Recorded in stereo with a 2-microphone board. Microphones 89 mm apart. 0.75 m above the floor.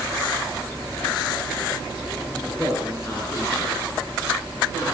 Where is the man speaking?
25° left (ahead or behind), 9.5 m; by 4.9 s 45° left (ahead or behind), 12 m.